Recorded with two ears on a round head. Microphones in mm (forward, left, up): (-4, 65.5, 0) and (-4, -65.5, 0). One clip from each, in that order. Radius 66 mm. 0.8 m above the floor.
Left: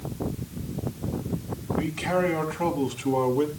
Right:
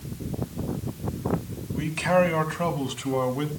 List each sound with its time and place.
1.7 s a man speaking: 70° right (ahead or behind), 5 m; by 3.5 s 65° right (ahead or behind), 6 m